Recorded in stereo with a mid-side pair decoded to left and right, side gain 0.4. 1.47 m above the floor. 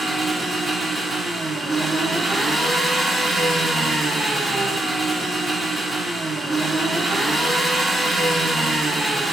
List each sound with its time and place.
0.0 s an engine running: 25° right, 1.2 m